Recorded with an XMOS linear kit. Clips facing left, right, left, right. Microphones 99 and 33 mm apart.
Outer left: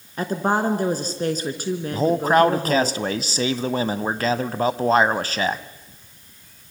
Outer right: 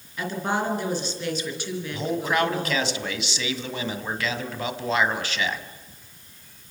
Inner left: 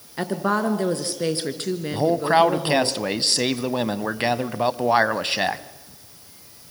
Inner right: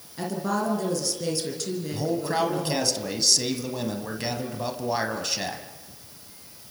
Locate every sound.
0.2 s a woman speaking: 40° left (ahead or behind), 3 m
1.9 s a man speaking: 40° left (ahead or behind), 1.4 m